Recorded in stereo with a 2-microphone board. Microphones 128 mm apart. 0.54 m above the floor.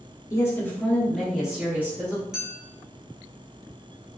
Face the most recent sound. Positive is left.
turn(degrees=-5)  # may be behind; listen again after turning